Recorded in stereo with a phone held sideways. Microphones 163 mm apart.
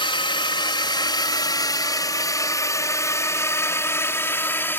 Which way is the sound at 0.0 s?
30° left (ahead or behind).